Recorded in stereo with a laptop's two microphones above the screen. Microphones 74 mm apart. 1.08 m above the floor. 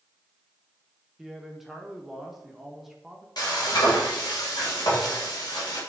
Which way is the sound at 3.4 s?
65° left (ahead or behind).